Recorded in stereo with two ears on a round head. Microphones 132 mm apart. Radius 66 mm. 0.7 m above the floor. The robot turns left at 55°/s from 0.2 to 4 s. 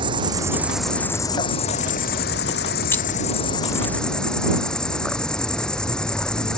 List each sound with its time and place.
0.0 s an insect: 145° right; by 6.6 s 5° left
2.9 s keys jangling: 15° left (ahead or behind); by 3.1 s 10° left (ahead or behind)